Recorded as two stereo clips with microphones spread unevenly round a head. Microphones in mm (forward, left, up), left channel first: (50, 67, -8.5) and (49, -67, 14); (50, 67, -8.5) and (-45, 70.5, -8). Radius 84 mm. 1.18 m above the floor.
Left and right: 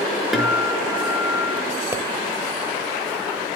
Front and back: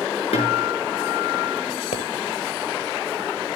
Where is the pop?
20° right, 3 m.